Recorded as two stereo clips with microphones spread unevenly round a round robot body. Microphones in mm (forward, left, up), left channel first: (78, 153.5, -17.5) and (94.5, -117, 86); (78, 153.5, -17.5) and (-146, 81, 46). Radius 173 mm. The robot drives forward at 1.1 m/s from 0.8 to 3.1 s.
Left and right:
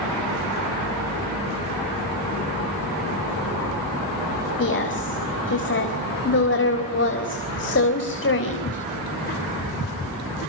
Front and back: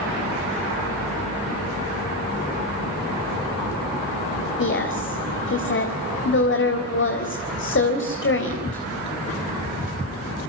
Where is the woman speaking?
50° left, 4 m.